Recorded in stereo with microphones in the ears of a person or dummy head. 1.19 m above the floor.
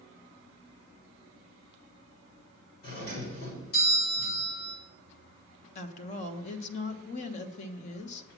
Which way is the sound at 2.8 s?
60° left (ahead or behind).